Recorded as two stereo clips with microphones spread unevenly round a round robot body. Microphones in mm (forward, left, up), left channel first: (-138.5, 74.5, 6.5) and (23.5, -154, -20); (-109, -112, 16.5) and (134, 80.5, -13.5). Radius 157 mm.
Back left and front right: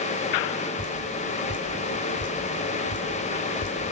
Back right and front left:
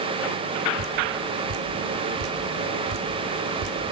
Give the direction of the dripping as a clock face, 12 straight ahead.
10 o'clock.